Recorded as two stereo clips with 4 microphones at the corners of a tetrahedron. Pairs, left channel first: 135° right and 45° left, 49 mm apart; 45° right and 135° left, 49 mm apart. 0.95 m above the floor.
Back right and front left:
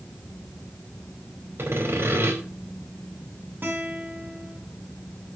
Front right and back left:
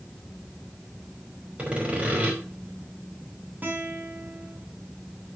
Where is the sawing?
75° left, 4.5 m.